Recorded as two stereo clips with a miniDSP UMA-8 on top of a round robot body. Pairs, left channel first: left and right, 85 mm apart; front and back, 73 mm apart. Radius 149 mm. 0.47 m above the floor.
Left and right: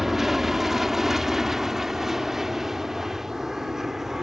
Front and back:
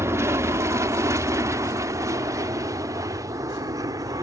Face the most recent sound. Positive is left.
turn(degrees=-175)